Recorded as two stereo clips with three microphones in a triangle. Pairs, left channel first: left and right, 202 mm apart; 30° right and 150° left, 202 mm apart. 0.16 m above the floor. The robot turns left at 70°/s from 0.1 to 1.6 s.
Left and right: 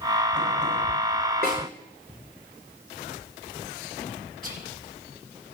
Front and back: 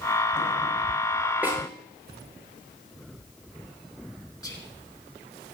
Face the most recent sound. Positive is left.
turn(degrees=-95)